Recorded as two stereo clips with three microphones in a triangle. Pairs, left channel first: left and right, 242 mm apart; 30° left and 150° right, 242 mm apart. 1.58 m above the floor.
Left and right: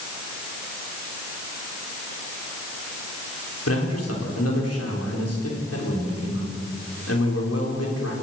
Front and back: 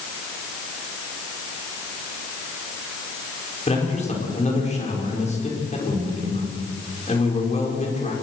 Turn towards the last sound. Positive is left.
turn(degrees=90)